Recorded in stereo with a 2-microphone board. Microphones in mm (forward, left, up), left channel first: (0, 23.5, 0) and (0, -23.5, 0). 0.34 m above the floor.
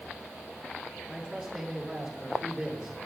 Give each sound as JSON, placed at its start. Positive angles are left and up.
{"t": 1.1, "sound": "a man speaking", "side_deg": -5, "distance_m": 5.5}